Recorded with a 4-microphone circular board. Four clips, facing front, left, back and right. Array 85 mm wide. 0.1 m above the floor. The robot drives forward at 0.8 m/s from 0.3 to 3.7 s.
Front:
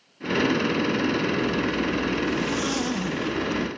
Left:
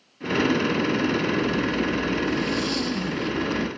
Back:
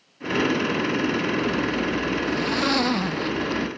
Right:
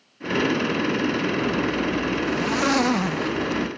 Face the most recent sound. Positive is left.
turn(degrees=-115)